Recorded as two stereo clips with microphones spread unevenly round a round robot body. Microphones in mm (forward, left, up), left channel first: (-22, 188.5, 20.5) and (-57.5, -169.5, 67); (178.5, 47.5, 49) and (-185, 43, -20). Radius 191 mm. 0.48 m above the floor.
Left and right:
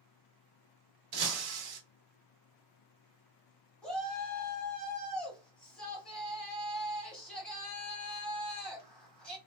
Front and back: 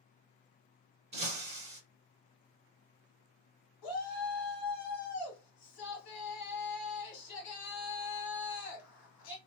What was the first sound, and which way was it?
Breaking glass, 100° right.